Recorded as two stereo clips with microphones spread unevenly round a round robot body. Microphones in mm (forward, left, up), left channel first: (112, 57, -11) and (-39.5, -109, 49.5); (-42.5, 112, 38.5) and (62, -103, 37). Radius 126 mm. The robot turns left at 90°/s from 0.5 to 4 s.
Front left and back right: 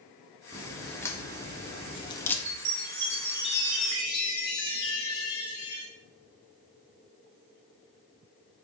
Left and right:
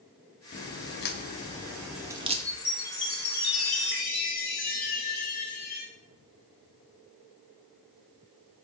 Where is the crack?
150° left, 1.1 m; by 2.4 s 15° right, 1.1 m.